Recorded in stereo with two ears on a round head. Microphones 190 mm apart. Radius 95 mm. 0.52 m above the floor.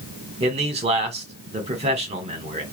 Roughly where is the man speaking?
Right.